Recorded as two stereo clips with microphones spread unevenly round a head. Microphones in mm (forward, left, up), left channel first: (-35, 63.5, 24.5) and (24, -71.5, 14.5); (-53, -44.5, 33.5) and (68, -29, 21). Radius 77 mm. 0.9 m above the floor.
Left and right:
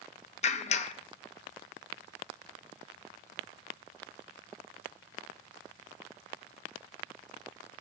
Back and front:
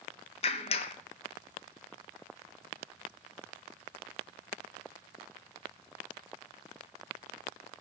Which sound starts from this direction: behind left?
A clap, at 0.4 s.